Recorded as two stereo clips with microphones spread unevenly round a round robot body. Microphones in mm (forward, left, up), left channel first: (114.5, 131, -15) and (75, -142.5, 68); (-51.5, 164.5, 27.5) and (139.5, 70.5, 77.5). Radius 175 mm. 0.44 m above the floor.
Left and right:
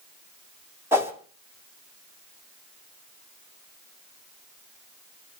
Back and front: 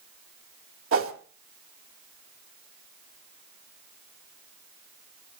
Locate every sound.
0.9 s a whoosh: 10° right, 2.0 m